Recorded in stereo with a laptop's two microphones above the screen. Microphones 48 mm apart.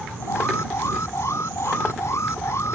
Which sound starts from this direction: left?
An alarm, at 0.2 s.